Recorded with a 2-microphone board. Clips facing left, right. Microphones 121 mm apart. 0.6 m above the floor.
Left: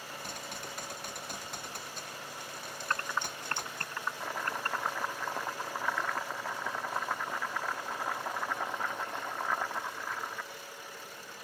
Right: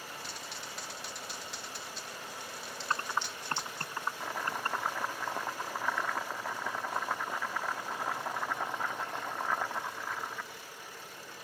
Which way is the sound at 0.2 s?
50° left (ahead or behind).